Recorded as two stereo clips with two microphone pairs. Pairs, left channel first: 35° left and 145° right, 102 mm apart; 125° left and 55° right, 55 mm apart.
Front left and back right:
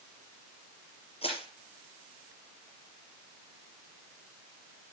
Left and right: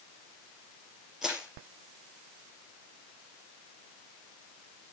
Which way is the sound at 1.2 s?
25° left.